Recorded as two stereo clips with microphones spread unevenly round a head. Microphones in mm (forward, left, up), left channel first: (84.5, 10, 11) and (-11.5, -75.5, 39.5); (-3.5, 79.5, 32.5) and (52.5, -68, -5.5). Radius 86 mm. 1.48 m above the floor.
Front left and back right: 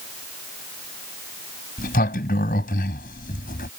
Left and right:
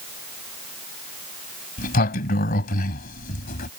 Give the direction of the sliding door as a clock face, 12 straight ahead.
9 o'clock.